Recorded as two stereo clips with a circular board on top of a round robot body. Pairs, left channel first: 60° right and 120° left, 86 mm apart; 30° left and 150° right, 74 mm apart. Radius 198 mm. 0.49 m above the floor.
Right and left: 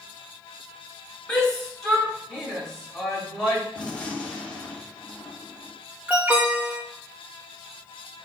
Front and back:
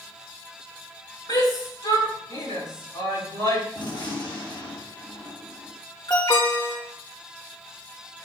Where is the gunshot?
20° left, 2 m.